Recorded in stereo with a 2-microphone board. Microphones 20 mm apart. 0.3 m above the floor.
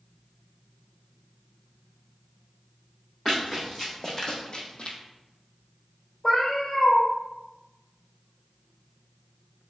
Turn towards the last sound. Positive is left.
turn(degrees=55)  # may be behind; listen again after turning